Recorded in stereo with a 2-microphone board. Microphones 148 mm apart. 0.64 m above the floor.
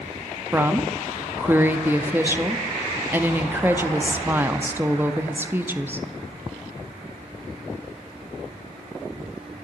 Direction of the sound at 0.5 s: 15° right (ahead or behind).